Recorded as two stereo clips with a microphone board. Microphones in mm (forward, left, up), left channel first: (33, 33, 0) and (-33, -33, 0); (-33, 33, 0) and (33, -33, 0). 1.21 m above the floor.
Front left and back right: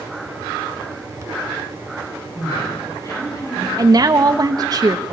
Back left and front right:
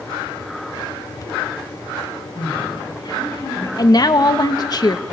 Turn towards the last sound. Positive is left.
turn(degrees=180)